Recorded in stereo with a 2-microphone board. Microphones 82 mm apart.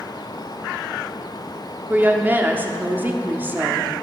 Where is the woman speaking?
25° right (ahead or behind), 0.8 m.